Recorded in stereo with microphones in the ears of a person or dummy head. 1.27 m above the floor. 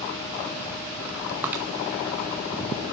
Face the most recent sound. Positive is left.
turn(degrees=-10)  # may be behind; listen again after turning